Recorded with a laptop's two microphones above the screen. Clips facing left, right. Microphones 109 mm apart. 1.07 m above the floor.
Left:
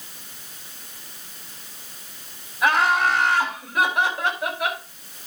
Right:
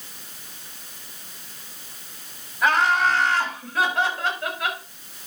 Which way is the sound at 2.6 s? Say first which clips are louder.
Even; 10° left (ahead or behind).